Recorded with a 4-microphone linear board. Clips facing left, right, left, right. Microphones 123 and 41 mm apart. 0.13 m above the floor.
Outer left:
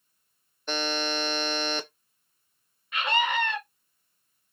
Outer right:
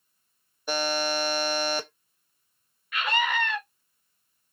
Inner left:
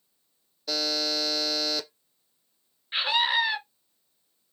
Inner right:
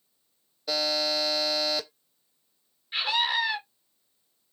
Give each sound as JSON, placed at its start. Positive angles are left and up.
{"t": 0.7, "sound": "a buzzer", "side_deg": -10, "distance_m": 0.9}
{"t": 2.9, "sound": "a scream", "side_deg": 25, "distance_m": 1.9}